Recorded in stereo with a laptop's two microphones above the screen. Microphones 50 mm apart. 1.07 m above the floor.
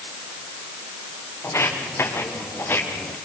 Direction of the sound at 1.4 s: 60° left (ahead or behind).